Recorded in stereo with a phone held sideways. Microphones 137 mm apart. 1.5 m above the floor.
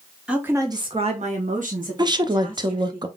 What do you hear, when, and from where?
0.3 s a woman speaking: 5° right (ahead or behind), 1.2 m; by 3.0 s 85° right, 2.5 m
2.0 s a woman speaking: 30° right (ahead or behind), 0.6 m